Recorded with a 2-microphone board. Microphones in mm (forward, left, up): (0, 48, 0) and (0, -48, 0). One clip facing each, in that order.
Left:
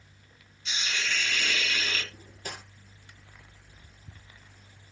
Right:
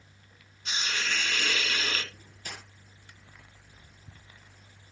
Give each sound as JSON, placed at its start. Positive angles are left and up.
{"t": 0.7, "sound": "a hiss", "side_deg": -45, "distance_m": 1.9}
{"t": 2.1, "sound": "cutlery clinking", "side_deg": 40, "distance_m": 2.5}